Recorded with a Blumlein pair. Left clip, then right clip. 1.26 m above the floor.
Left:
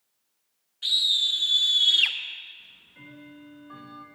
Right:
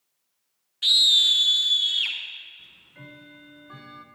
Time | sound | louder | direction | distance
0.8 | a scream | right 5 dB | 65° right | 1.0 m
2.6 | ticking | right 1 dB | 15° right | 0.9 m